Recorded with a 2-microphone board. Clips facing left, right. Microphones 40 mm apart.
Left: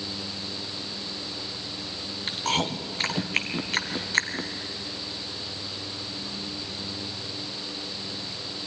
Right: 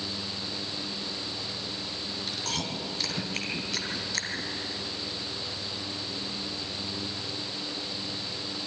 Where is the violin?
No violin in this recording.